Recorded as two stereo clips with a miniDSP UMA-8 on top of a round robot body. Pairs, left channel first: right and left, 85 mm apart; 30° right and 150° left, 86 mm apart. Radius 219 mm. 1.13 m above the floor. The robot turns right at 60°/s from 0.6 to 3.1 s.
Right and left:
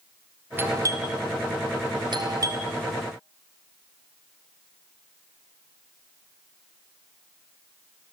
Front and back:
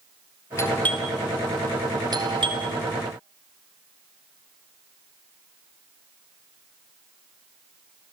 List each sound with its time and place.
0.6 s a doorbell: 25° left, 4 m; by 2.7 s 150° left, 4 m